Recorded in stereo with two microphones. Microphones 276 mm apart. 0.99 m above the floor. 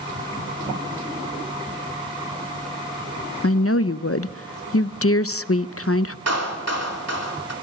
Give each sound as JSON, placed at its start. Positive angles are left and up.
{"t": 3.4, "sound": "a woman speaking", "side_deg": 55, "distance_m": 0.5}
{"t": 6.3, "sound": "a clap", "side_deg": -65, "distance_m": 3.0}